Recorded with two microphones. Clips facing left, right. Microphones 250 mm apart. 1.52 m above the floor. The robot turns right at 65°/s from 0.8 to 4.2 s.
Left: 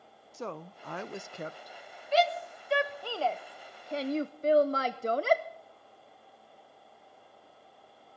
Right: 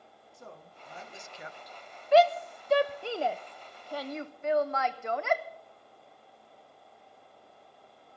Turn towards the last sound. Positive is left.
turn(degrees=40)  # may be behind; listen again after turning